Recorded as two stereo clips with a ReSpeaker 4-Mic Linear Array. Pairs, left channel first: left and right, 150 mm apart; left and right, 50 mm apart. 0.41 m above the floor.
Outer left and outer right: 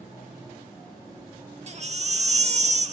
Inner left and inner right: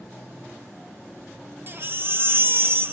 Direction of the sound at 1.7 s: 45° right (ahead or behind).